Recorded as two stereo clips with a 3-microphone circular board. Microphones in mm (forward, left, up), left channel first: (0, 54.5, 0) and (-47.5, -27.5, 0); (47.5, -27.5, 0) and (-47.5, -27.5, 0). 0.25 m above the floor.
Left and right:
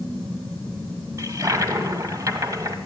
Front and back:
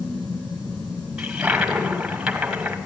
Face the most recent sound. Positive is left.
turn(degrees=-95)